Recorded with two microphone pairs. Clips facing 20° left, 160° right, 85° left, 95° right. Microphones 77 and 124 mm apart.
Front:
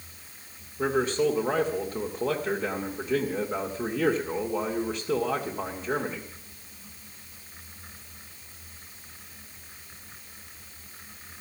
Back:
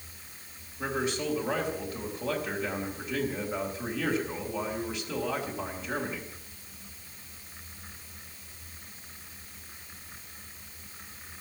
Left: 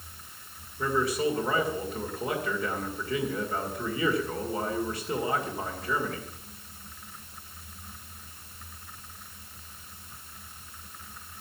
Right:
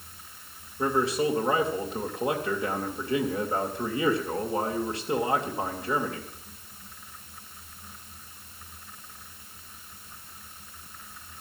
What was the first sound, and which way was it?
A man speaking, 25° right.